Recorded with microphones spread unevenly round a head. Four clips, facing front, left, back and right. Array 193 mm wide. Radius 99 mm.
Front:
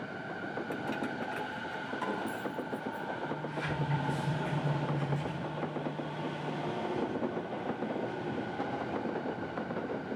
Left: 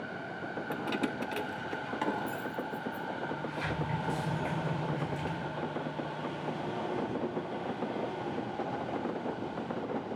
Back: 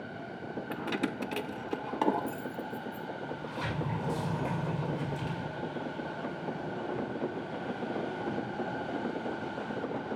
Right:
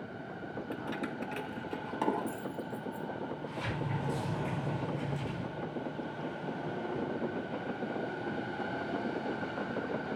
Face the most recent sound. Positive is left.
turn(degrees=-175)